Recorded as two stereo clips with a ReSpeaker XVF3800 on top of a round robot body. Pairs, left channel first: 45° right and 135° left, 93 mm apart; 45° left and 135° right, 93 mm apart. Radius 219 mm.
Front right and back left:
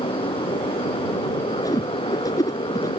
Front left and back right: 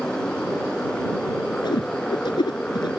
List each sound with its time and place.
0.0 s a motorcycle: 35° right
1.6 s a whoosh: 5° left